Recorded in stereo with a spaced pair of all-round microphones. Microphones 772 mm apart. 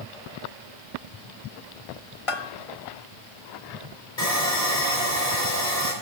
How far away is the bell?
About 0.8 m.